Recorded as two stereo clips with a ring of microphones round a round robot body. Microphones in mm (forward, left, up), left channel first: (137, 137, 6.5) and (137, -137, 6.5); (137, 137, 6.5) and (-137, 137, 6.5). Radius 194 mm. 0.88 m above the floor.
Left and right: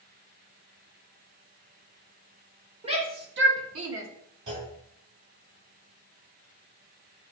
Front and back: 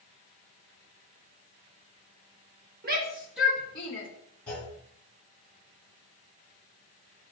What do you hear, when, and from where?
2.8 s a shout: 155° right, 1.1 m; by 4.1 s 65° right, 1.7 m
4.5 s a clunk: 85° right, 4 m